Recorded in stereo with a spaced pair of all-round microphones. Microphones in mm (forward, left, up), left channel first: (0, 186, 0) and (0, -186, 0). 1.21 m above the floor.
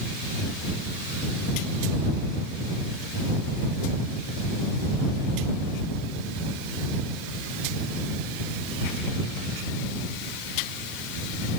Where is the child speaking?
I don't hear a child speaking.